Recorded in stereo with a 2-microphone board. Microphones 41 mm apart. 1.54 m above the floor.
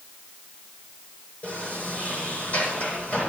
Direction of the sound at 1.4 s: 55° left (ahead or behind).